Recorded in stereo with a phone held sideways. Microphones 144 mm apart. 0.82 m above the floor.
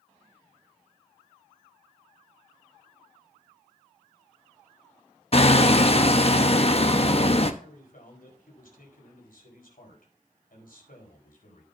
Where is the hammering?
45° left (ahead or behind), 0.9 m.